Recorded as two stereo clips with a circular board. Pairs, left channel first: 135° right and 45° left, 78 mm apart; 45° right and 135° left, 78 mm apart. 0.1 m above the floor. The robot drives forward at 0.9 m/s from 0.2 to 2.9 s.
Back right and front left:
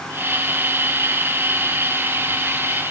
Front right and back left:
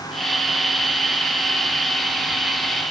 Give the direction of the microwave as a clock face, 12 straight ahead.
I don't hear a microwave.